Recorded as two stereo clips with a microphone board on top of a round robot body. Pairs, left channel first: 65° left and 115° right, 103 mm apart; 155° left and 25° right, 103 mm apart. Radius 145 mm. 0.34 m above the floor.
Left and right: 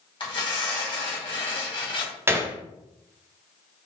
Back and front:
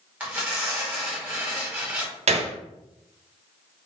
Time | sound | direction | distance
0.2 | tearing paper | 50° left | 2 m
2.3 | a gunshot | 45° right | 0.5 m